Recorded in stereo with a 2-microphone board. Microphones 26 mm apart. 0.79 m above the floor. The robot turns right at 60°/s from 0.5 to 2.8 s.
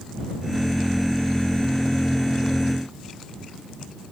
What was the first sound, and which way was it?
Only background noise.